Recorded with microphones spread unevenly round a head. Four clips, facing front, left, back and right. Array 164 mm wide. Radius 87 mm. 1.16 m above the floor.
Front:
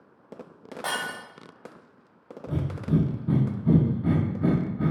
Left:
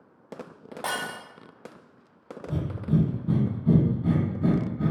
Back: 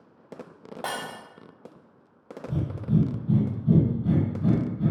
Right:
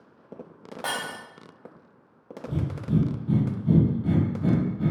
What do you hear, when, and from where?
0.8 s breaking glass: straight behind, 1.0 m
2.5 s breathing: 20° left, 0.8 m